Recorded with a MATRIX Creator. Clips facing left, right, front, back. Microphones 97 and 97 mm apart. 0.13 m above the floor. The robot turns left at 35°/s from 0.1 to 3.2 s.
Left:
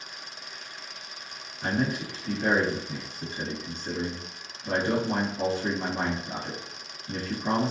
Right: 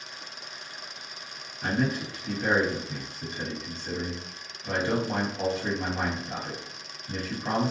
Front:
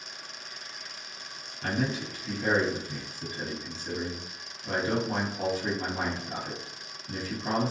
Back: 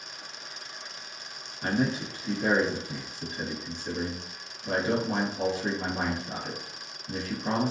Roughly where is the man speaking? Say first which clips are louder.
Even, back 3 dB; behind.